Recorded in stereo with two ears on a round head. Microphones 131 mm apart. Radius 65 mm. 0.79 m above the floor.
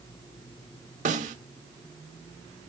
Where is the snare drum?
55° right (ahead or behind), 1.3 m.